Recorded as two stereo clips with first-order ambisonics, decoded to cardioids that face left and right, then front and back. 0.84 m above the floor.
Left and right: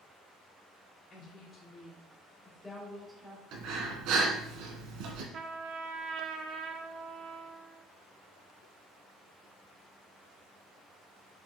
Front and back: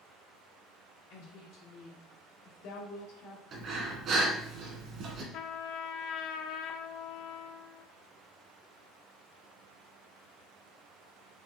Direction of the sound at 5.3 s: 35° right.